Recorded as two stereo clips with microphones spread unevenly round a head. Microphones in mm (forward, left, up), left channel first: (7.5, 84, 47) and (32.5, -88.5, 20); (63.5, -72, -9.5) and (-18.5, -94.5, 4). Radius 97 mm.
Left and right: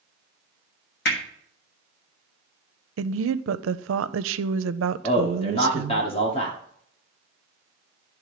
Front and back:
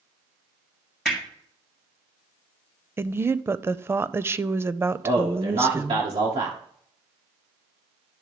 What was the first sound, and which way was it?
Hammering, 110° left.